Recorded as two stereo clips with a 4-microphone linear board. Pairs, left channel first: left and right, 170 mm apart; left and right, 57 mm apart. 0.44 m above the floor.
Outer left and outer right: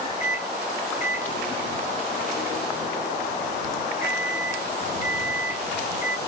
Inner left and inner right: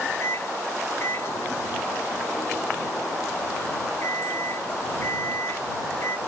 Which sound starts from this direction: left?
A microwave, at 0.2 s.